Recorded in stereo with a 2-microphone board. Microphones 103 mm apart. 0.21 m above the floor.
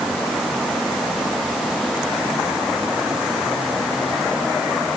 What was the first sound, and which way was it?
Only background noise.